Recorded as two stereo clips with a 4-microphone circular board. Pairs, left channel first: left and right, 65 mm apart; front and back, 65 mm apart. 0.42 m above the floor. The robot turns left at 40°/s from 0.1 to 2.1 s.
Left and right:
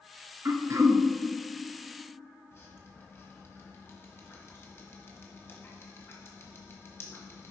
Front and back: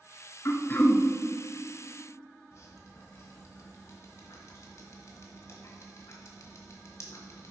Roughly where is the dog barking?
No dog barking in this recording.